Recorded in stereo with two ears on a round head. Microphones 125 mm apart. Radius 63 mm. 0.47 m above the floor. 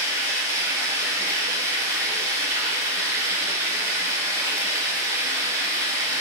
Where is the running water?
25° right (ahead or behind), 0.8 m.